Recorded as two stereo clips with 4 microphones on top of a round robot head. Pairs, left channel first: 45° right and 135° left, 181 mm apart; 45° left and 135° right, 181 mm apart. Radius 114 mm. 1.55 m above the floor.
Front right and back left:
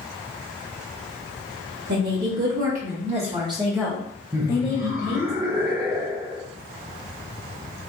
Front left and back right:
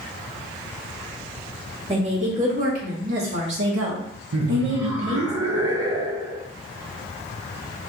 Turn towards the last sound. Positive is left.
turn(degrees=-155)